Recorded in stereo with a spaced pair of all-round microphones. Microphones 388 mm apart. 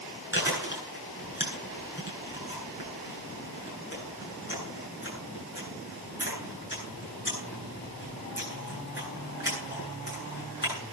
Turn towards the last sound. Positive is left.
turn(degrees=30)  # may be behind; listen again after turning